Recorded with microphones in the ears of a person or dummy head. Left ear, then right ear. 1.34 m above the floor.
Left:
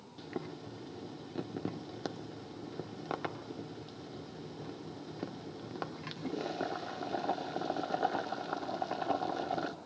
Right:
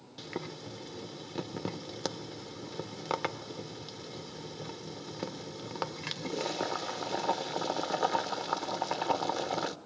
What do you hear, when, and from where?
0.2 s boiling: 25° right (ahead or behind), 0.9 m